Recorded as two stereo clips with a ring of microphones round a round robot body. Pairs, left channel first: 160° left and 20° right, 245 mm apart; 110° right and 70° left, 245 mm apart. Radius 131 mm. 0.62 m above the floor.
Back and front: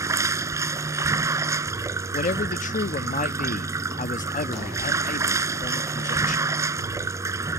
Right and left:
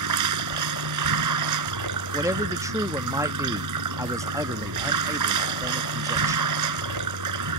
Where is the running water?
55° left.